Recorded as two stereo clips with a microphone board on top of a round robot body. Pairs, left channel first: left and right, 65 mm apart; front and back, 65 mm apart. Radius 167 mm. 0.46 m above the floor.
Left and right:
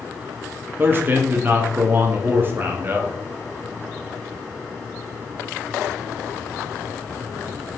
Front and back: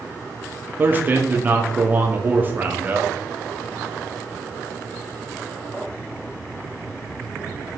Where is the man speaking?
130° right, 1.2 m.